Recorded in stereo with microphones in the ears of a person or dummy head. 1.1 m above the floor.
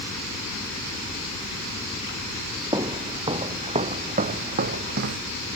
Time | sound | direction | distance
2.7 | footsteps | 25° right (ahead or behind) | ?